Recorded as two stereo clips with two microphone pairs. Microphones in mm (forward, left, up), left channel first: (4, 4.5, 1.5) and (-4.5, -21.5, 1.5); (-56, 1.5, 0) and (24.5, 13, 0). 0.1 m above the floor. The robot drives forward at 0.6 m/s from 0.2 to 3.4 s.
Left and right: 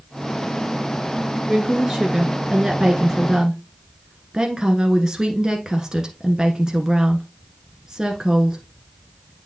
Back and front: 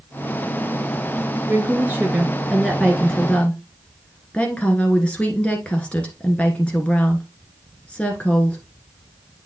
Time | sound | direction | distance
1.5 | a woman speaking | 25° right | 1.6 m